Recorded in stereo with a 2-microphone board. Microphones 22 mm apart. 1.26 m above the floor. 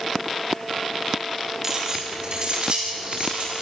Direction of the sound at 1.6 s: 25° right (ahead or behind).